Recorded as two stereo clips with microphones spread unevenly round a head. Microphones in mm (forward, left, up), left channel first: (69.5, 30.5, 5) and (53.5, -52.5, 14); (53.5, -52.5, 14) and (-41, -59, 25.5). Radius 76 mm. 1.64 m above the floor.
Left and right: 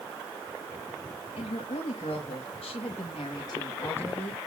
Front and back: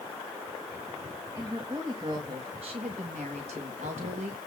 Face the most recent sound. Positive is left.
turn(degrees=160)